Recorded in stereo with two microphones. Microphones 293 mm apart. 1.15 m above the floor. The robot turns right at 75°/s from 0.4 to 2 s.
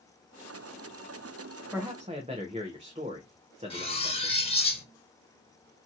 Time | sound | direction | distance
1.7 | a man speaking | centre (ahead or behind) | 0.7 m
3.7 | cutlery clinking | 20° left (ahead or behind) | 0.8 m